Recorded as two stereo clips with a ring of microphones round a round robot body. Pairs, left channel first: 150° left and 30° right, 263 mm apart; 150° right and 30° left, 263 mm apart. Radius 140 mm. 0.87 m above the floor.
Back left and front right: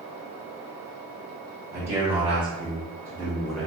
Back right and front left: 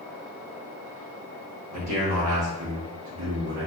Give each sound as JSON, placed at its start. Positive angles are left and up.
{"t": 1.7, "sound": "a man speaking", "azimuth_deg": 35, "distance_m": 2.0}